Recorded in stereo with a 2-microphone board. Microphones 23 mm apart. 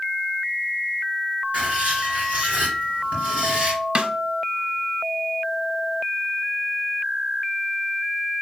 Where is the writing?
65° right (ahead or behind), 3.5 m.